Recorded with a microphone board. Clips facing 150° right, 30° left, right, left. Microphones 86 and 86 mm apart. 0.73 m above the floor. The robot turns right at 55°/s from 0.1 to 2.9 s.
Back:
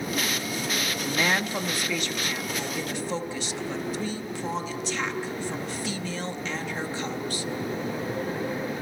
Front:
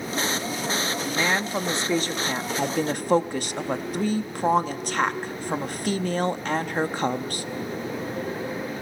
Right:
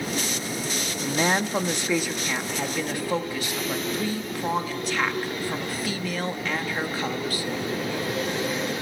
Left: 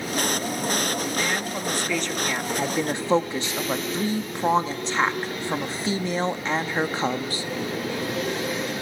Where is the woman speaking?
65° right, 0.9 m; by 7.5 s 35° left, 0.9 m.